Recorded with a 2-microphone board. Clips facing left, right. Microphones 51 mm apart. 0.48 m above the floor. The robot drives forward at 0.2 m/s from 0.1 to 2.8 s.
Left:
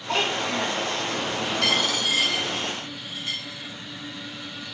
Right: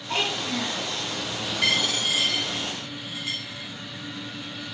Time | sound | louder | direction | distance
0.1 | a child speaking | left 3 dB | 65° left (ahead or behind) | 1.3 m
1.6 | a dropped coin | right 1 dB | 15° right (ahead or behind) | 1.0 m